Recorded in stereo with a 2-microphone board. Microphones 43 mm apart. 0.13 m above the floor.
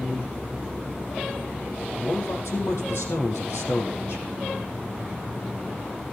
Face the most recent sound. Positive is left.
turn(degrees=75)  # may be behind; listen again after turning